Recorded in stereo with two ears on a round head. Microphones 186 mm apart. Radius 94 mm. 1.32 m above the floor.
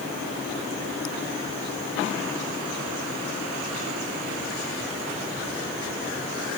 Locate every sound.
Only background noise.